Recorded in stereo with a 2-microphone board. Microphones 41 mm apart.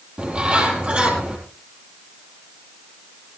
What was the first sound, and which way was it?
A bird, 25° right (ahead or behind).